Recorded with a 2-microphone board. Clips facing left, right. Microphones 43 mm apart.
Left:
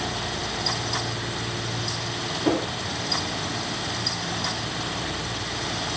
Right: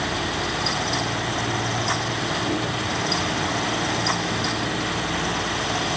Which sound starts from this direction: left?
A whoosh, at 2.5 s.